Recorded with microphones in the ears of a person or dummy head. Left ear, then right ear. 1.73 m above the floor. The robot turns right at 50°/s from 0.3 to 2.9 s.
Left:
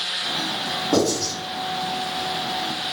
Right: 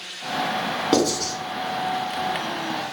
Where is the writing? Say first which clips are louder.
Even; 35° right (ahead or behind), 1.2 m; by 1.3 s 15° right (ahead or behind), 1.2 m.